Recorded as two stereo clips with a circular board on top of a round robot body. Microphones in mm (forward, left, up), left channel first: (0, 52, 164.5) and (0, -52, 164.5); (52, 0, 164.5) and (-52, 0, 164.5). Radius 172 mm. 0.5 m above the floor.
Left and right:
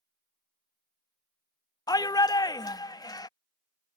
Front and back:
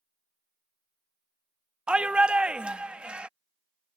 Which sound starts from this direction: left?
A shout, at 1.9 s.